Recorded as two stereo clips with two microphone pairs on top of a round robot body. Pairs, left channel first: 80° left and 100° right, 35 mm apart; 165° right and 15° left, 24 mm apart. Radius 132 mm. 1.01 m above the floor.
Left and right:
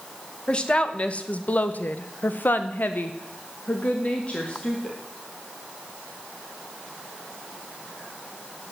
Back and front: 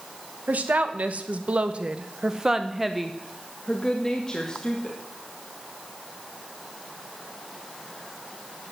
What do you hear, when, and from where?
0.5 s a woman speaking: 20° left, 1.6 m; by 5.0 s 140° left, 2 m